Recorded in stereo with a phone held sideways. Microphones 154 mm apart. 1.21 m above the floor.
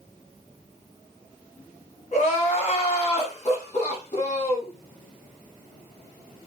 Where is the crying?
45° left (ahead or behind), 1.1 m.